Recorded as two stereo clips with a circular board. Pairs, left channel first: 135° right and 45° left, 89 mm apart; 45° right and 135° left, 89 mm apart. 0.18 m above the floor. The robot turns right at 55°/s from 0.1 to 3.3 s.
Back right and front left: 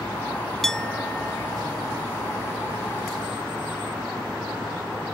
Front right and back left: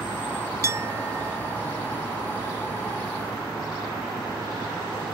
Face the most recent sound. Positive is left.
turn(degrees=-75)